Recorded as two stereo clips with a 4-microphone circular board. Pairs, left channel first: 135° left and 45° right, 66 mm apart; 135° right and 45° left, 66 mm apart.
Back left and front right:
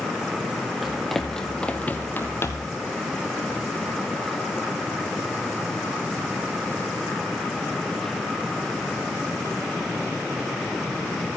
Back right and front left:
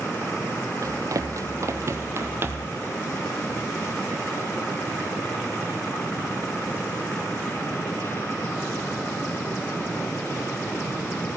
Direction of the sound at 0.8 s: 40° left.